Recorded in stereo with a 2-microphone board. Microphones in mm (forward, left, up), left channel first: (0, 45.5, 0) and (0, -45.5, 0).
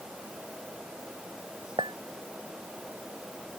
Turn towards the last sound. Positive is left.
turn(degrees=-60)  # may be behind; listen again after turning